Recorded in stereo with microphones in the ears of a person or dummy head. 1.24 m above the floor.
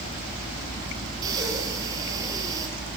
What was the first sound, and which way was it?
Breathing, 20° right (ahead or behind).